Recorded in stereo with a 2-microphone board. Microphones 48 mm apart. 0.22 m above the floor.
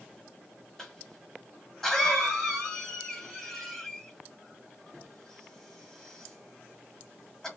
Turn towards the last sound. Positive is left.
turn(degrees=10)  # may be behind; listen again after turning